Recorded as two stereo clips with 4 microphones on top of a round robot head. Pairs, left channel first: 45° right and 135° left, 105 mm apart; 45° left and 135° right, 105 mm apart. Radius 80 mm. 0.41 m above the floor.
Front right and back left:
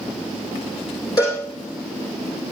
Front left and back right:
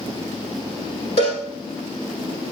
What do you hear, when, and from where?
1.2 s a cowbell: 15° left, 6.5 m